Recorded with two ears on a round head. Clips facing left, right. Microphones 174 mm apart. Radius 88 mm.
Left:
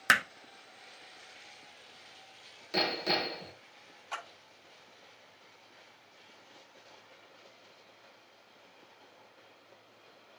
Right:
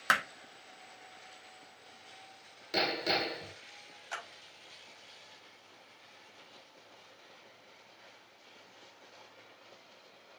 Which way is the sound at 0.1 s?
25° left (ahead or behind).